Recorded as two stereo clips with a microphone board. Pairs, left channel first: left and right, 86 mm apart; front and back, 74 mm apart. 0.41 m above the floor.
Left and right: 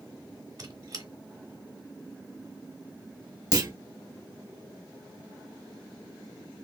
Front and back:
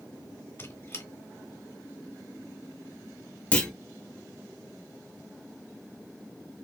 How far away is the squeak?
About 0.9 m.